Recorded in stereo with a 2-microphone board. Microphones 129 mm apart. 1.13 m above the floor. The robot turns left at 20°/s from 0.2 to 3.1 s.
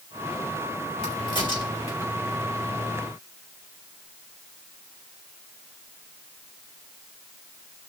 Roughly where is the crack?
Left.